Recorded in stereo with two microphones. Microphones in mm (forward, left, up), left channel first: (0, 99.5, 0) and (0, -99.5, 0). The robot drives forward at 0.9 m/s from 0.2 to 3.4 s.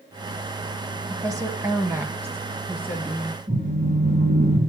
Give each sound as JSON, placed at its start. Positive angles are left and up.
{"t": 1.1, "sound": "a woman speaking", "side_deg": -15, "distance_m": 1.0}
{"t": 3.5, "sound": "a phone buzzing", "side_deg": -35, "distance_m": 6.5}